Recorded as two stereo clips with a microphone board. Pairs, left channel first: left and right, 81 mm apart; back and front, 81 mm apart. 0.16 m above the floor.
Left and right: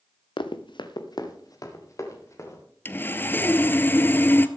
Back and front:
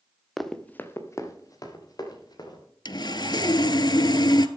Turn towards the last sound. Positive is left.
turn(degrees=155)